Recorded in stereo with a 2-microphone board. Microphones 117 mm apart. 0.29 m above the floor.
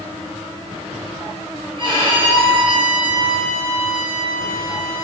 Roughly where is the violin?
Right.